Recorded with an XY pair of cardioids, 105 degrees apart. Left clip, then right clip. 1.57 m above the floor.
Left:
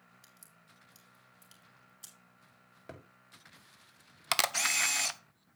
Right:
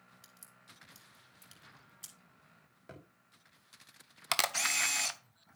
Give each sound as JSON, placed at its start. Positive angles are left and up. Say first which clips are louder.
{"t": 0.2, "sound": "a crack", "louder": "right 2 dB", "azimuth_deg": -15, "distance_m": 5.0}
{"t": 2.9, "sound": "a thud", "louder": "left 3 dB", "azimuth_deg": 35, "distance_m": 3.5}
{"t": 4.3, "sound": "a camera shutter", "louder": "left 2 dB", "azimuth_deg": 10, "distance_m": 0.7}